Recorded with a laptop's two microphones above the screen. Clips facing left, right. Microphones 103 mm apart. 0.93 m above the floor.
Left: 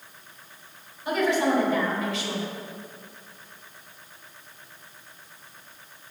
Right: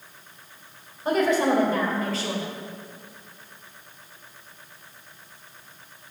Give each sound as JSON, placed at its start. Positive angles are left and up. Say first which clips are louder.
{"t": 1.1, "sound": "a woman speaking", "louder": "right 2 dB", "side_deg": -40, "distance_m": 3.5}